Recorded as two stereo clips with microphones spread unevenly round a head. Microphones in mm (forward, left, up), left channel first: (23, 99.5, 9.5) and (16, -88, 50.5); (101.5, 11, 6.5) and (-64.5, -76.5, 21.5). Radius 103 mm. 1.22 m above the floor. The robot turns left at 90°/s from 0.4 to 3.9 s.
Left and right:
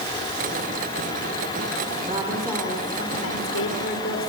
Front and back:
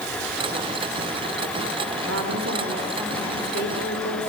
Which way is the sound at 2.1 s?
150° right.